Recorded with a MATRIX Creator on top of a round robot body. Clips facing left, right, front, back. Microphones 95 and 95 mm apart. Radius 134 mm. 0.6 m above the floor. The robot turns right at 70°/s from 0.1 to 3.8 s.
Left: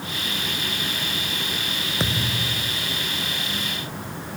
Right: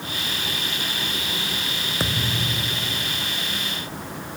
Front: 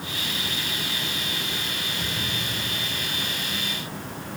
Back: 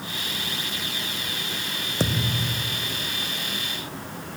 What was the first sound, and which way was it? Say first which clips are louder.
A thud: even, back 10 dB; straight behind.